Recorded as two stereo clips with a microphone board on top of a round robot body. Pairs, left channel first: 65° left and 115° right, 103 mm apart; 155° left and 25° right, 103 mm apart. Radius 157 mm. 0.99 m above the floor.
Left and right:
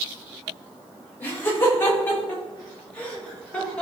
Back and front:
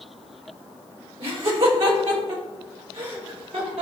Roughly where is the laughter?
Ahead.